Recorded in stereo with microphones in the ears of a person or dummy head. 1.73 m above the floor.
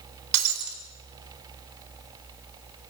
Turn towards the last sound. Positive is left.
turn(degrees=-60)  # may be behind; listen again after turning